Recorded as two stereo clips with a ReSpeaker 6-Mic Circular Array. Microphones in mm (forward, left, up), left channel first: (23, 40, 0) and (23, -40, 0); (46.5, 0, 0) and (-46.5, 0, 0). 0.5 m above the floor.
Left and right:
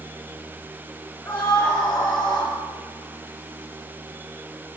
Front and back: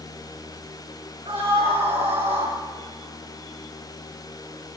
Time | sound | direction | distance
1.2 | a scream | 150° left | 6.5 m